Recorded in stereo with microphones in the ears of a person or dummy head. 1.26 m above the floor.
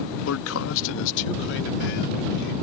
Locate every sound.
0.3 s a man speaking: 80° left; by 2.5 s 60° left (ahead or behind)